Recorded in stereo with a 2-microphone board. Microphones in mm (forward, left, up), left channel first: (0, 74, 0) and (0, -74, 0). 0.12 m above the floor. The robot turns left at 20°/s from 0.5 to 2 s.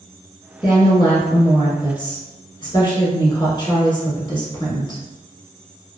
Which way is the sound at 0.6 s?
30° left (ahead or behind).